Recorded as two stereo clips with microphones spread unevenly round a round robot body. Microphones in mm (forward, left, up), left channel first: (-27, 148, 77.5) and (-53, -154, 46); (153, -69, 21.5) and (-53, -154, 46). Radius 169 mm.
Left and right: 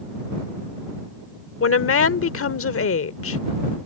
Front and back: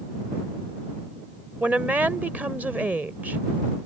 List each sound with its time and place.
1.6 s a woman speaking: 115° left